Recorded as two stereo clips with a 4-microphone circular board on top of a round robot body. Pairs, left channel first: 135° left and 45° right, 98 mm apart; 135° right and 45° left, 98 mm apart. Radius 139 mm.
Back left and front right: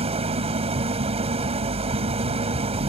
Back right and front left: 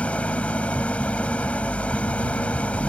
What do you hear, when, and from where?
0.0 s an engine running: 55° right